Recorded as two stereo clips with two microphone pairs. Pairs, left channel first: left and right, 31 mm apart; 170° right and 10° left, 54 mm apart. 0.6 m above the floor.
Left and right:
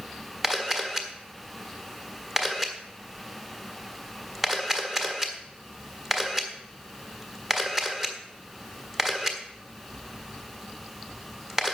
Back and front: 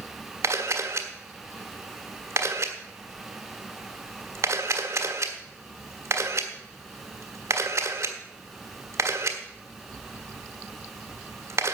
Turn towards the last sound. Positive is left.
turn(degrees=-15)